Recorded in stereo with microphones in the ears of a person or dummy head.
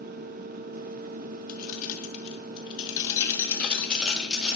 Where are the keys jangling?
55° left (ahead or behind), 1.3 m; by 4.5 s centre (ahead or behind), 1.7 m.